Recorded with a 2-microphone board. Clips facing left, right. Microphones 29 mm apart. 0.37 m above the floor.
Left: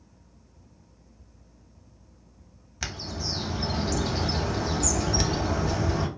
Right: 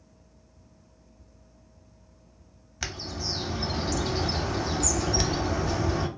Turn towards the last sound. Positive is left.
turn(degrees=0)  # may be behind; listen again after turning